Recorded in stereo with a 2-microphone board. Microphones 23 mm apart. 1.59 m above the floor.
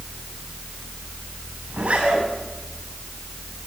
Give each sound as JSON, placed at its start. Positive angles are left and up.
{"t": 1.7, "sound": "a zipper", "side_deg": -70, "distance_m": 9.0}